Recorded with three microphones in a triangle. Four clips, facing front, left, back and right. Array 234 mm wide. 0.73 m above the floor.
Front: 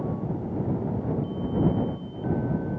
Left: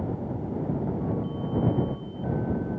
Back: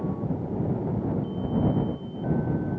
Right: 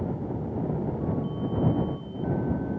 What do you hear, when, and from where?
Only background noise.